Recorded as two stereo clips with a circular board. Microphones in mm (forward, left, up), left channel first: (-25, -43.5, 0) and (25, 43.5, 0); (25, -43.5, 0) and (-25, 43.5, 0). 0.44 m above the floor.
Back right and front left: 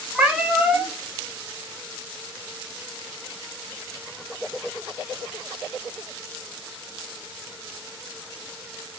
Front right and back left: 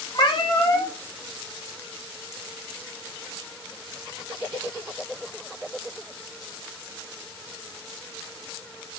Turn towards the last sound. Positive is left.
turn(degrees=-20)